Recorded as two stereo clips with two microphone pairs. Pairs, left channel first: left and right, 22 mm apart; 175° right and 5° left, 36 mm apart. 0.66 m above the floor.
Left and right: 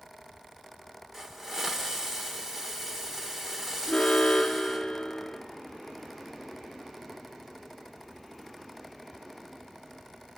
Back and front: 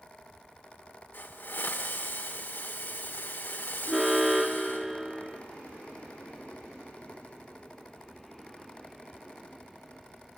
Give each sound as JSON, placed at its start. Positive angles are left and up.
{"t": 1.1, "sound": "a hiss", "azimuth_deg": -160, "distance_m": 1.8}
{"t": 3.9, "sound": "an alarm", "azimuth_deg": 85, "distance_m": 1.1}